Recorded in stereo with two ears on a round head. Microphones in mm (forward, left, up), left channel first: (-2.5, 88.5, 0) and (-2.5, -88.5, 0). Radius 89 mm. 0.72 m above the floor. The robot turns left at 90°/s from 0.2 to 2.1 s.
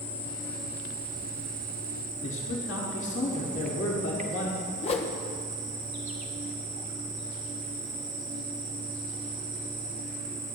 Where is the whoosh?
30° left (ahead or behind), 0.7 m.